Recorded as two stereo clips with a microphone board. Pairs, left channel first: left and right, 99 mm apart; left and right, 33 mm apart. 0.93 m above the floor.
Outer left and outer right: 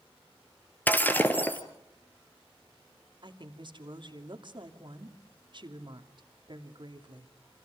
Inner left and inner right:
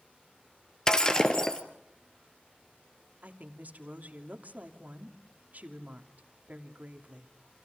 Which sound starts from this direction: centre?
Breaking glass, at 0.9 s.